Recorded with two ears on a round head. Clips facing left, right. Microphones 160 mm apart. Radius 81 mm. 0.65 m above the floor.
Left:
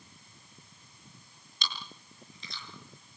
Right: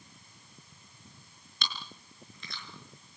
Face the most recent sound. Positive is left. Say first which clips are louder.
# even
turn(degrees=-45)  # may be behind; listen again after turning